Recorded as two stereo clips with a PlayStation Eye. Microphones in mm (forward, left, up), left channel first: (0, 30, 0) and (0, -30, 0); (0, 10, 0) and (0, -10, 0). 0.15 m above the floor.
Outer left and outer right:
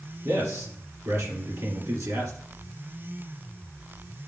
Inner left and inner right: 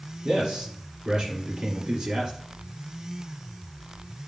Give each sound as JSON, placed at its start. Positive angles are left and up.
{"t": 0.2, "sound": "a man speaking", "side_deg": -60, "distance_m": 3.0}